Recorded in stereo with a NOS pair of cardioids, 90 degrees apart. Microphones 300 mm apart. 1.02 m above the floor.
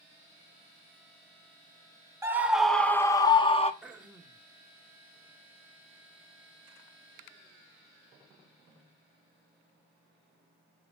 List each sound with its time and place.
2.2 s a scream: 10° right, 1.2 m; by 3.7 s 20° left, 1.4 m
3.8 s throat clearing: 5° right, 1.4 m